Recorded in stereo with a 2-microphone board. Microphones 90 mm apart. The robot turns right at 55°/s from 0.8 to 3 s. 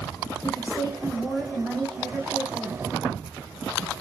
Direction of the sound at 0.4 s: 105° left.